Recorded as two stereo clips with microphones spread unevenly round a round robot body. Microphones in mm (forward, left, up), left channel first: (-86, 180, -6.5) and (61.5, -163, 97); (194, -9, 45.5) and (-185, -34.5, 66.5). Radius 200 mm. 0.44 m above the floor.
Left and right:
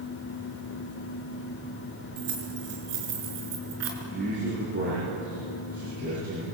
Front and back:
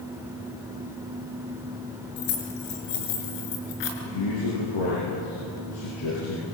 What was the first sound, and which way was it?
Keys jangling, 15° right.